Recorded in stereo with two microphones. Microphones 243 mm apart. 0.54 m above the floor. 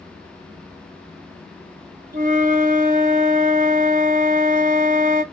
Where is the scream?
I don't hear a scream.